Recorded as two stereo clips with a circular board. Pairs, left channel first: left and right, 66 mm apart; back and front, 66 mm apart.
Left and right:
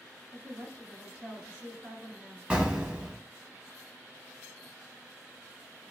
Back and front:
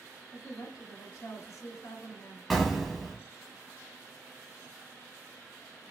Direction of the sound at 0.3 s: 160° right.